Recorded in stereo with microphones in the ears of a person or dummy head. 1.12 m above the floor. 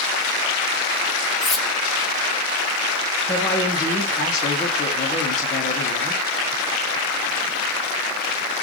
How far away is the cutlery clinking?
About 0.7 m.